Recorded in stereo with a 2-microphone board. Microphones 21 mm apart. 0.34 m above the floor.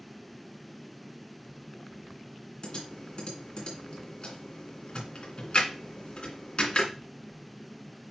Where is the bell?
I don't hear a bell.